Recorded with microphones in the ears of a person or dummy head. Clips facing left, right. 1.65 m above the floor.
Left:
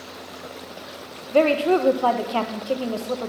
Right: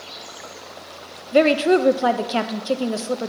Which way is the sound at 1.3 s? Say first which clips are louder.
Right 2 dB; 20° right (ahead or behind).